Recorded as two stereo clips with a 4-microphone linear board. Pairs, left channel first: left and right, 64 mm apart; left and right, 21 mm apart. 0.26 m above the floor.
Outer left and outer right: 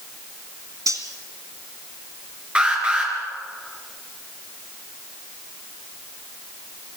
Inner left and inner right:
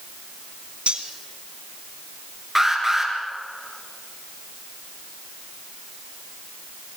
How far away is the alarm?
About 4 m.